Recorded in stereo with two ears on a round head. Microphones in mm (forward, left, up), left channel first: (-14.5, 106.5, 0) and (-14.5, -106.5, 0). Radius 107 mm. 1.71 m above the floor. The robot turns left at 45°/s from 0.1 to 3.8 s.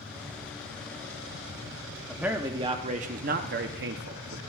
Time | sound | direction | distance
2.1 | a man speaking | 5° right | 0.7 m